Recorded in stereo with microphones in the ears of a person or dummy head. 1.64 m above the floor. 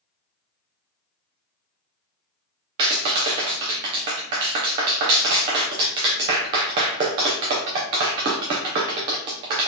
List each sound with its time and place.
2.8 s a clap: 20° right (ahead or behind), 0.7 m